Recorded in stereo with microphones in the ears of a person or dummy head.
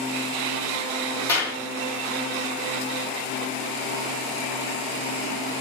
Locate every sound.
1.3 s a clap: 10° left (ahead or behind), 1.6 m